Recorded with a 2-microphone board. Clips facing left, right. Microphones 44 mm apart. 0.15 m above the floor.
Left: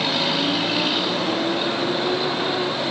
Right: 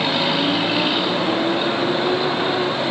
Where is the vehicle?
10° right (ahead or behind).